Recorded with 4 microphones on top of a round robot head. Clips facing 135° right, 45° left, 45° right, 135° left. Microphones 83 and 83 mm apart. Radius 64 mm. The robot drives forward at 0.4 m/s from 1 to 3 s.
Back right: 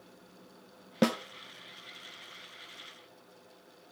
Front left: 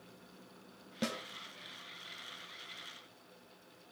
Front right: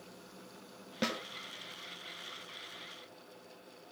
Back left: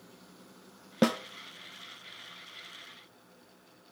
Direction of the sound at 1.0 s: 175° right.